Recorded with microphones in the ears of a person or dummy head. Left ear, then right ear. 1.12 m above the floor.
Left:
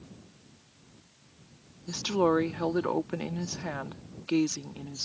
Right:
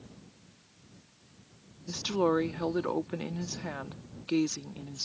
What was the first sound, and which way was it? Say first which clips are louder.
A woman speaking: left 2 dB; 10° left (ahead or behind).